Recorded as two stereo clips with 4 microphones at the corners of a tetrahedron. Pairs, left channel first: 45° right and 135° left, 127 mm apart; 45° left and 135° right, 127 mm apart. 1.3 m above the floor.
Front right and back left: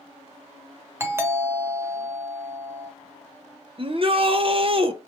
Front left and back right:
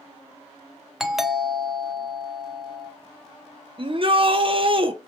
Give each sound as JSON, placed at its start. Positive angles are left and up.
{"t": 1.0, "sound": "a doorbell", "azimuth_deg": 140, "distance_m": 0.5}
{"t": 3.8, "sound": "a shout", "azimuth_deg": 180, "distance_m": 0.7}